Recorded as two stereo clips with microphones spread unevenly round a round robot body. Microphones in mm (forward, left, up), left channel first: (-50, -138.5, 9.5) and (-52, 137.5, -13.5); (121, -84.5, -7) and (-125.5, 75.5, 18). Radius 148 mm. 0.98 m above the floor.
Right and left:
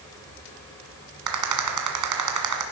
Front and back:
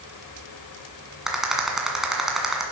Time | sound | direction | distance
1.3 | a rattle | 60° left | 1.9 m